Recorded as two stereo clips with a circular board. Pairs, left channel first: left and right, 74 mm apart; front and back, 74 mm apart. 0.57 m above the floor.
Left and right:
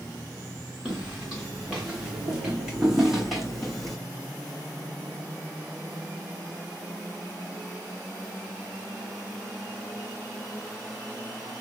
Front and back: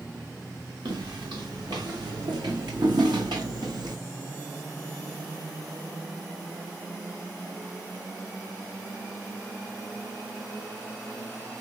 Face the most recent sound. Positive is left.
turn(degrees=175)